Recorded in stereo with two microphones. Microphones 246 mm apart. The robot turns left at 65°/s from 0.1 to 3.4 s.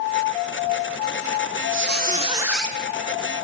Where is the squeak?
125° right, 1.8 m; by 2.8 s 170° left, 1.8 m.